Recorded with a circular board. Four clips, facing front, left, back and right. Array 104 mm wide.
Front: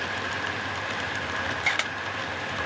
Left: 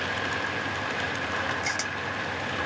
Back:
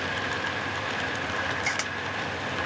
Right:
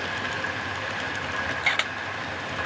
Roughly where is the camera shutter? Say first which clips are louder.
Right 3 dB, front 2 dB; ahead right.